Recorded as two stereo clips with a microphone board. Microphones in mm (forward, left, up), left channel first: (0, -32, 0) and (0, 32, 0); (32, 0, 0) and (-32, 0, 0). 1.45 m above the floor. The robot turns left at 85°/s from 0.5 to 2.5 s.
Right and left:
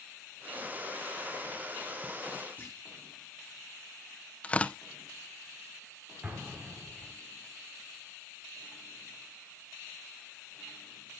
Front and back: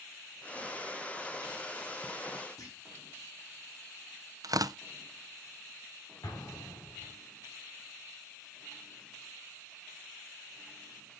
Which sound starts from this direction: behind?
Tearing paper, at 4.4 s.